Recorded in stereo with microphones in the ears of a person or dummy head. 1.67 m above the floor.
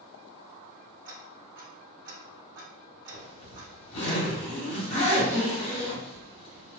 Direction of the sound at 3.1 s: 30° left (ahead or behind).